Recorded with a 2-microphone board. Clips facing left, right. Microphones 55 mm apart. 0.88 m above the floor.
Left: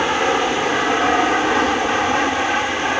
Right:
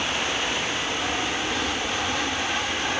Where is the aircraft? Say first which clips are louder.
Left 9 dB; 60° left (ahead or behind); by 3.0 s 35° left (ahead or behind).